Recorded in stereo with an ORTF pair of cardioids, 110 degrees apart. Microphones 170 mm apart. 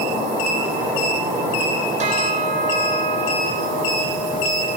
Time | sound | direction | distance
0.0 | an insect | 55° right | 5 m
2.0 | a bell | 45° right | 4 m